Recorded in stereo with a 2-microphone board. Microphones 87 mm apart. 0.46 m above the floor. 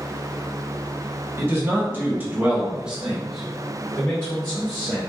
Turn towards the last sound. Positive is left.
turn(degrees=25)  # may be behind; listen again after turning